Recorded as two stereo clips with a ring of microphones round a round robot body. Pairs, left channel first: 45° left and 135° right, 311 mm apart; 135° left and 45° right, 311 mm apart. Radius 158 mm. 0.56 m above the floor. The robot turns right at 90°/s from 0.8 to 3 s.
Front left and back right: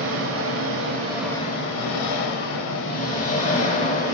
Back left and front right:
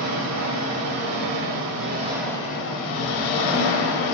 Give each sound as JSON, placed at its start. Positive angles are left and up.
{"t": 0.0, "sound": "an engine running", "azimuth_deg": -85, "distance_m": 0.7}